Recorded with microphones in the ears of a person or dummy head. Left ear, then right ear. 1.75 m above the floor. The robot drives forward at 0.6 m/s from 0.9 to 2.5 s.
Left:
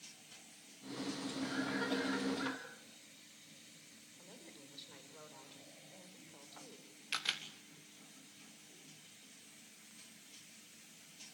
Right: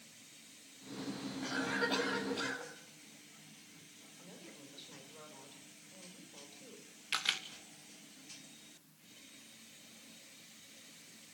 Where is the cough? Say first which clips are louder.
Right 4 dB; 15° right (ahead or behind), 9.5 m.